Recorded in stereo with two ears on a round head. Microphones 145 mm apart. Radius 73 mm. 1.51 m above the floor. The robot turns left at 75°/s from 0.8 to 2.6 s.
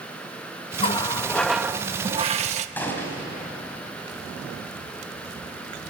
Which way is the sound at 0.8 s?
50° left.